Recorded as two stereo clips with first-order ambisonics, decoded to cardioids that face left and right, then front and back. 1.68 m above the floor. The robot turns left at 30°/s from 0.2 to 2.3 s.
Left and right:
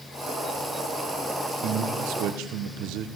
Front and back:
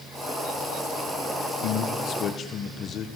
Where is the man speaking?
45° right, 1.6 m; by 3.1 s 65° right, 1.6 m.